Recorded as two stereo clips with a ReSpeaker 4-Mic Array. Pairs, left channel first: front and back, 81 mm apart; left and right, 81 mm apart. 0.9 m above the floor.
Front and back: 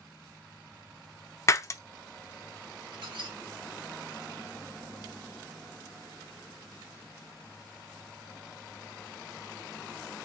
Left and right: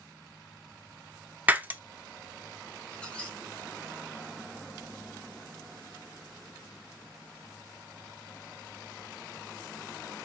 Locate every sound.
1.5 s breaking glass: 30° right, 0.5 m
2.9 s a squeak: 165° left, 1.4 m